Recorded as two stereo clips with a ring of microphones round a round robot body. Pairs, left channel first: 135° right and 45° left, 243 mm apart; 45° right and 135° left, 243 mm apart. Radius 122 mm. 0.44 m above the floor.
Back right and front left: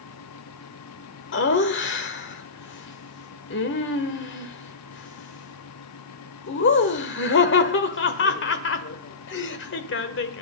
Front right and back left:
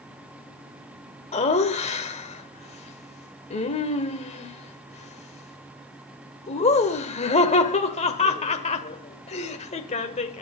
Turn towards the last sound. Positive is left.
turn(degrees=-105)